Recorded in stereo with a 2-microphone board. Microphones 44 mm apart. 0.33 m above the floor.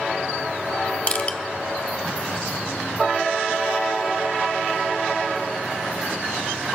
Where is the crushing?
30° left (ahead or behind), 0.6 m.